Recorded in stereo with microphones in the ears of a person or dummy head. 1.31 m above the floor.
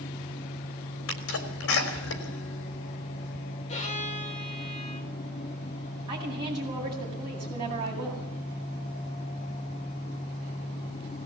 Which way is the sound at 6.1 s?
25° right (ahead or behind).